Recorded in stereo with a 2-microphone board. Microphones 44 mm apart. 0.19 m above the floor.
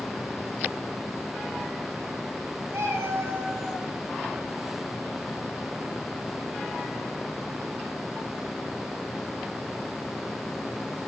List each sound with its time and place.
2.7 s a cat meowing: 80° right, 1.9 m